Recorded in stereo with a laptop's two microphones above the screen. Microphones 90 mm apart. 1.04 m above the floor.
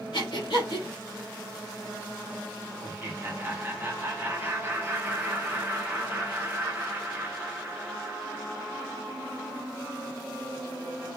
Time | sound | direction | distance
0.1 | breathing | 75° left (ahead or behind) | 1.9 m
2.8 | laughter | 25° right (ahead or behind) | 0.8 m